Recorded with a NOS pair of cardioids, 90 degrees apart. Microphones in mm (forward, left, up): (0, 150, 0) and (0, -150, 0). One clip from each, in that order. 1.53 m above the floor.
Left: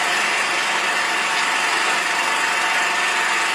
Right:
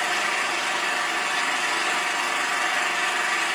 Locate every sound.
0.0 s an engine running: 30° left, 1.5 m